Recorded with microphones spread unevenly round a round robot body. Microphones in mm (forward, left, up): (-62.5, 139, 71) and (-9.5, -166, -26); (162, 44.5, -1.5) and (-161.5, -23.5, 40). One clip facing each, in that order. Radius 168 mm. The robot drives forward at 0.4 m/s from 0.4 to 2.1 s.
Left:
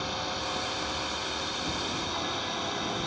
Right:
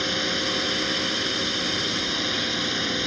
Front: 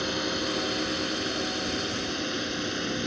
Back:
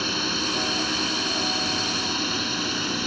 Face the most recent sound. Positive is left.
turn(degrees=-95)